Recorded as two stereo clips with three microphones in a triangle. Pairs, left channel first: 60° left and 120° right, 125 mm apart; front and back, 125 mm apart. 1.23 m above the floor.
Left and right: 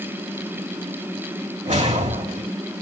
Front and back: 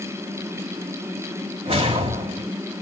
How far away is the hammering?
No hammering in this recording.